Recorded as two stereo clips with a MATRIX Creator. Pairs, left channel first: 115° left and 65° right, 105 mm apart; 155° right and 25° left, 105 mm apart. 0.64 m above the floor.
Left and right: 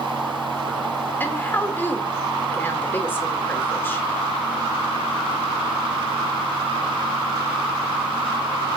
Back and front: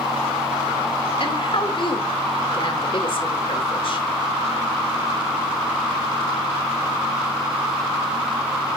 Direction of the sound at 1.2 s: Straight behind.